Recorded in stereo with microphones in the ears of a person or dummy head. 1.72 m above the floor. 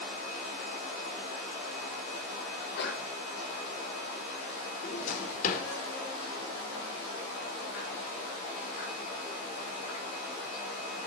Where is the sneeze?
70° left (ahead or behind), 7.5 m.